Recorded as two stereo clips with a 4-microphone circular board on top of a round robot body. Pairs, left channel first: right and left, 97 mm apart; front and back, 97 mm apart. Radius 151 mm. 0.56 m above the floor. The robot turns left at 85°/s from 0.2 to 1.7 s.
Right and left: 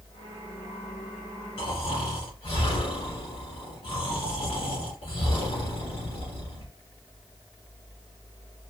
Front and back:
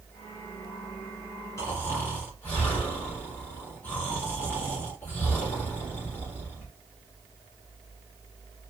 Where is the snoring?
60° right, 1.8 m; by 6.7 s 70° right, 1.8 m.